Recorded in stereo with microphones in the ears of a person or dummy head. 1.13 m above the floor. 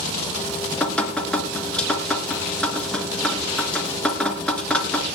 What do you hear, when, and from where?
0.4 s dripping: 5° left (ahead or behind), 2 m